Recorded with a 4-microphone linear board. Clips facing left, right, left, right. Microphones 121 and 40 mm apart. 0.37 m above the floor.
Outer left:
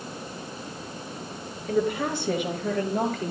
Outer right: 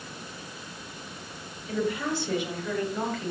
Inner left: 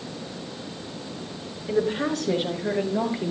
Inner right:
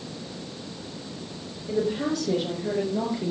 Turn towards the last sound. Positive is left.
turn(degrees=50)  # may be behind; listen again after turning